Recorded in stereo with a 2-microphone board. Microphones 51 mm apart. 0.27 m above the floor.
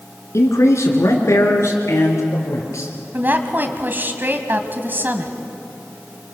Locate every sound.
0.3 s a man speaking: 65° left (ahead or behind), 3 m
3.1 s a woman speaking: 40° right (ahead or behind), 1.7 m